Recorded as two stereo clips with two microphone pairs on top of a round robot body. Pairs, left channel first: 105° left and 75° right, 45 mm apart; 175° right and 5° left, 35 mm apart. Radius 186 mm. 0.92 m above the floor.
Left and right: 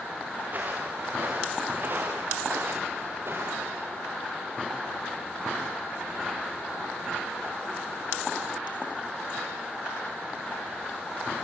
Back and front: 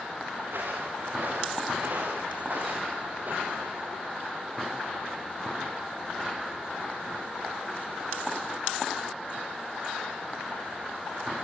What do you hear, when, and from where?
0.4 s footsteps: 25° right, 7.5 m; by 3.9 s 40° right, 8.5 m